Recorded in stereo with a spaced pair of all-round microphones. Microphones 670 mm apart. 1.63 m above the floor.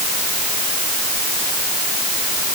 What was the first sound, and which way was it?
Only background noise.